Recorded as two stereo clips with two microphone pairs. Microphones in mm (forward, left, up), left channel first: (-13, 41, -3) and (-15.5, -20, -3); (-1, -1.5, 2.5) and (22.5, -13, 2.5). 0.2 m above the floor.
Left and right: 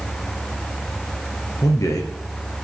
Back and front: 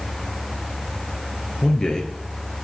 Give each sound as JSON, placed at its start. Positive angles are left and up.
{"t": 1.6, "sound": "a man speaking", "azimuth_deg": 95, "distance_m": 2.5}